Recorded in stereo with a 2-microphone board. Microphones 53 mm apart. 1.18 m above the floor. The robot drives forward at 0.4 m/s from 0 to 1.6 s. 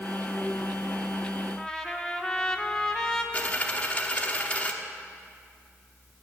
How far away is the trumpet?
About 0.8 m.